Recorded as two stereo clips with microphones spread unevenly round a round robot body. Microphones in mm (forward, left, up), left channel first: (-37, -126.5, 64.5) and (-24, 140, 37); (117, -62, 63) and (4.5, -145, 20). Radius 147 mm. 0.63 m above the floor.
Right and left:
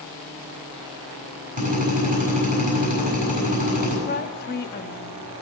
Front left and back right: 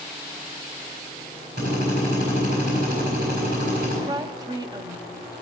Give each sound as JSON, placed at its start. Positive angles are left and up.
{"t": 1.6, "sound": "a drill", "azimuth_deg": 150, "distance_m": 8.0}
{"t": 4.1, "sound": "a woman speaking", "azimuth_deg": -135, "distance_m": 0.8}